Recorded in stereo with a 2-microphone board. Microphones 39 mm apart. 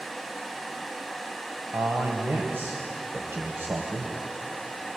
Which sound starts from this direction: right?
A man speaking, at 1.7 s.